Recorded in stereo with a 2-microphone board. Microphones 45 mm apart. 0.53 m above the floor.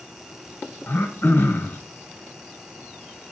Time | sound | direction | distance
0.9 | throat clearing | 55° left (ahead or behind) | 1.1 m